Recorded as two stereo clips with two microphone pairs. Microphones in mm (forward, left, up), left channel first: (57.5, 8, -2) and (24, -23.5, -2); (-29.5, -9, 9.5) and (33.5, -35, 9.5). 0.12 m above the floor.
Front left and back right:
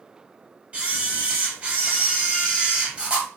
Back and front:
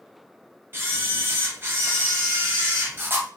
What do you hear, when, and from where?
0.7 s a camera shutter: 70° right, 1.1 m